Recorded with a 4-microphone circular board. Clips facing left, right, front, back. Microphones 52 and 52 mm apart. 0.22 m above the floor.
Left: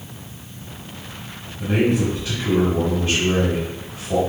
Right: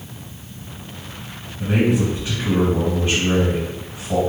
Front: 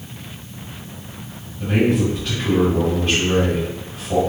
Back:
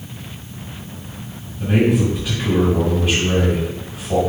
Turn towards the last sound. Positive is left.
turn(degrees=-115)